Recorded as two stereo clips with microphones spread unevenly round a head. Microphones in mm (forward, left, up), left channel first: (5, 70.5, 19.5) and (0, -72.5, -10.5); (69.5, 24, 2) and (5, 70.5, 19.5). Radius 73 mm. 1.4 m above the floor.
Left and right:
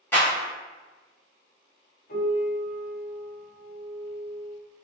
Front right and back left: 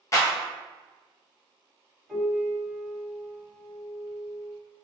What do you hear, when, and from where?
0.1 s a clap: 15° left, 1.0 m
2.1 s a piano: 55° left, 1.4 m